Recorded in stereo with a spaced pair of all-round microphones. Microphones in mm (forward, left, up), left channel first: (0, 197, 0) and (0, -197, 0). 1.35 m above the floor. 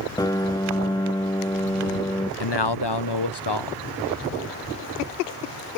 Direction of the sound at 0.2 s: 10° left (ahead or behind).